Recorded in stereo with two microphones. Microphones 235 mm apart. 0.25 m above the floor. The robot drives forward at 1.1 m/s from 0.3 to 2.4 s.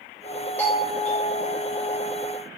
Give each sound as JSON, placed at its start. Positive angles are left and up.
{"t": 0.6, "sound": "a doorbell", "side_deg": 5, "distance_m": 3.0}